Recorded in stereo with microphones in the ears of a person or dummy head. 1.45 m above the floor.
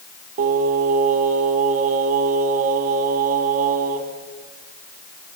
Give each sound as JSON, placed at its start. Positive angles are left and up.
{"t": 0.4, "sound": "singing", "side_deg": -45, "distance_m": 1.8}